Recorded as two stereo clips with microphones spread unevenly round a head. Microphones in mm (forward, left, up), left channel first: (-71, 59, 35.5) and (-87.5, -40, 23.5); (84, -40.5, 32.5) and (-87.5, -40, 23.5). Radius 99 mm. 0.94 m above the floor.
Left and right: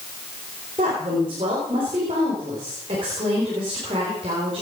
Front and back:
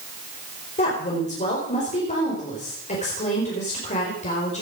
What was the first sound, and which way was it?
A woman speaking, 50° right.